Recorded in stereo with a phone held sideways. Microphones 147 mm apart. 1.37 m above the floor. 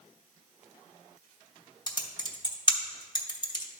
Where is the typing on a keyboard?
30° left (ahead or behind), 1.0 m.